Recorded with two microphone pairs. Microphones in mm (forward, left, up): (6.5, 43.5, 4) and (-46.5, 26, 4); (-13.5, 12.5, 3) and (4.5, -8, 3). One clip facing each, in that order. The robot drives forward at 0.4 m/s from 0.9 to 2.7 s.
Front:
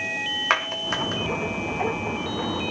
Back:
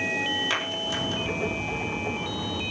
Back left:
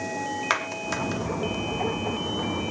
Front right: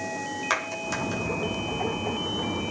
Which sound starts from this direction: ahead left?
A clap, at 0.5 s.